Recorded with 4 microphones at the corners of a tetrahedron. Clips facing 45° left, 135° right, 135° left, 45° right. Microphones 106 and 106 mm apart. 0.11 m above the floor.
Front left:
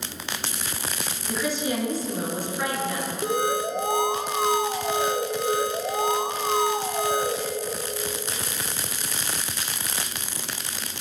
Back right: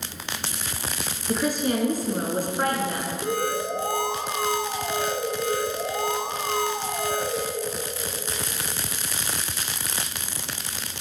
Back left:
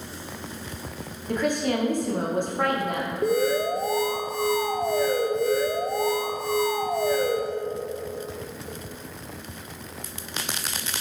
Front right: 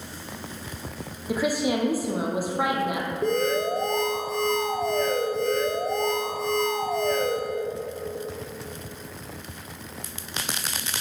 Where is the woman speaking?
125° right, 1.6 m.